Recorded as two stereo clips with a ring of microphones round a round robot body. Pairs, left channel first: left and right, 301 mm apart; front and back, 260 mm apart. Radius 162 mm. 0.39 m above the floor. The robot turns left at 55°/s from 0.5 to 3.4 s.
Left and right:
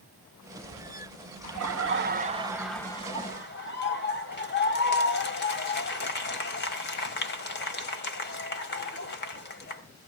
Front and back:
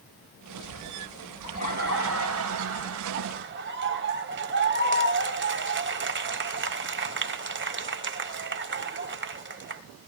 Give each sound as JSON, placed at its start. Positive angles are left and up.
{"t": 1.4, "sound": "laughter", "azimuth_deg": -110, "distance_m": 3.0}